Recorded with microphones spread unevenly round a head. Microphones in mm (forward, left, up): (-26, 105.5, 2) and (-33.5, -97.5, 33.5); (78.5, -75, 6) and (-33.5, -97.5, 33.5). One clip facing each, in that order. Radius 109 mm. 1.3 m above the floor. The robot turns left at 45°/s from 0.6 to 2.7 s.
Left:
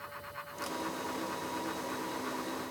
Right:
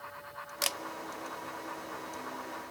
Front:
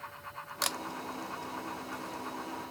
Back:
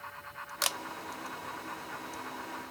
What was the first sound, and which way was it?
A camera shutter, 75° right.